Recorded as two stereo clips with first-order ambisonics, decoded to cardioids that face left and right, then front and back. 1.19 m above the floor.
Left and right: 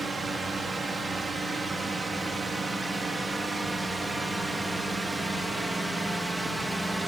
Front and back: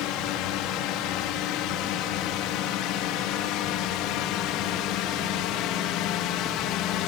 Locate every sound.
0.0 s a drone: 10° right; by 7.1 s straight ahead